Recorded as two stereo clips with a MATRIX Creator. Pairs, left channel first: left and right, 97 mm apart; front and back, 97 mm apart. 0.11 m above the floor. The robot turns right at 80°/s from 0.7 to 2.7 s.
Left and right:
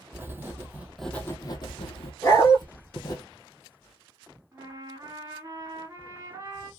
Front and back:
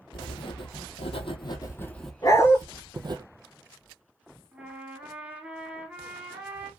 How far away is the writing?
About 0.6 m.